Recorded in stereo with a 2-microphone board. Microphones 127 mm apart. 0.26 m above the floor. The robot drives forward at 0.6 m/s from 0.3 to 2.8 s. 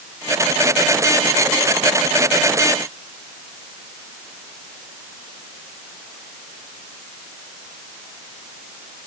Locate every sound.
Only background noise.